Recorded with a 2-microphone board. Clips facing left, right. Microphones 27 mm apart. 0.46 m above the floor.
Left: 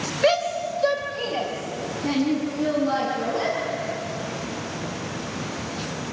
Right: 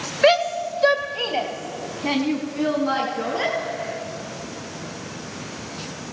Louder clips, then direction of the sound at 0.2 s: Right 4 dB; 25° right (ahead or behind).